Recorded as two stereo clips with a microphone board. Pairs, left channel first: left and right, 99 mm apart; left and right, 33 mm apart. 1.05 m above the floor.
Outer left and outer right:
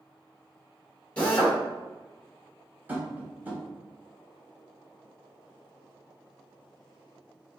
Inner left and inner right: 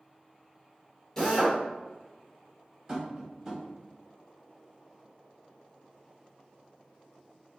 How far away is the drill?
About 1.7 m.